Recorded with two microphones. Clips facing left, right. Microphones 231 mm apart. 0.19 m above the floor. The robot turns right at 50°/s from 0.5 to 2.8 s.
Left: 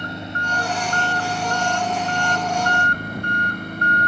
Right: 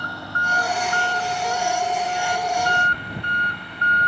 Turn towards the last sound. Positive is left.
turn(degrees=135)